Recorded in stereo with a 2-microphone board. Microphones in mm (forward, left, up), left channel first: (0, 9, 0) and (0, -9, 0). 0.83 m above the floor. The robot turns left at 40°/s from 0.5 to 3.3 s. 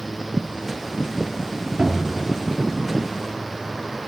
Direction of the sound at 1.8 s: 65° right (ahead or behind).